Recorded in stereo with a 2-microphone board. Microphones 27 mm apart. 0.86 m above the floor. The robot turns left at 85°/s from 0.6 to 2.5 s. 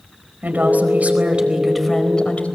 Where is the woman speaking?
75° right, 4 m; by 2.5 s 125° left, 4 m.